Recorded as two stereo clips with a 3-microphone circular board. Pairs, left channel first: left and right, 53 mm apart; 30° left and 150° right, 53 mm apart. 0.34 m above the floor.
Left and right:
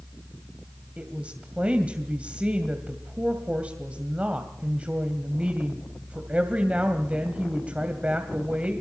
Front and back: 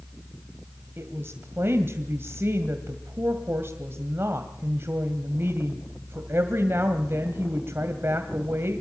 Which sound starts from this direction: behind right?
A woman speaking, at 1.0 s.